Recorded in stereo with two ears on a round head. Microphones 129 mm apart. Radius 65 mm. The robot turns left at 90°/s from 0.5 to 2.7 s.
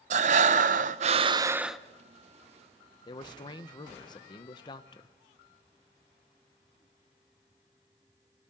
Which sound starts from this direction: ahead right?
Breathing, at 0.1 s.